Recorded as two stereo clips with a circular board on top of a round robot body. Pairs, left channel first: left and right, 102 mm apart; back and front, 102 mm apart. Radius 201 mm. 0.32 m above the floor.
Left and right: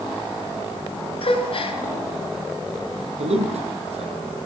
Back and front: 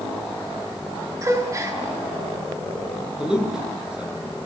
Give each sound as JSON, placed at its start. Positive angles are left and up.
{"t": 1.2, "sound": "a gasp", "azimuth_deg": 60, "distance_m": 7.0}
{"t": 3.2, "sound": "a man speaking", "azimuth_deg": -80, "distance_m": 9.0}